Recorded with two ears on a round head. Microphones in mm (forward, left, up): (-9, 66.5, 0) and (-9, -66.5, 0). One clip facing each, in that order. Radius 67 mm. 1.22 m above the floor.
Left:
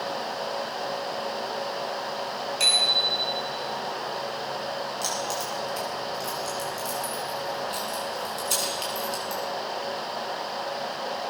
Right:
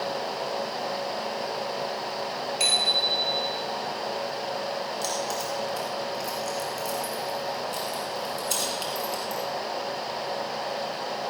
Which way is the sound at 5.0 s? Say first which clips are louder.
Right 1 dB; centre (ahead or behind).